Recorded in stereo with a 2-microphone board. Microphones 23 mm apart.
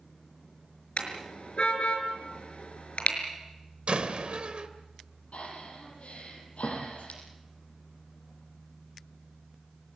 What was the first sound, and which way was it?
A car horn, 60° left (ahead or behind).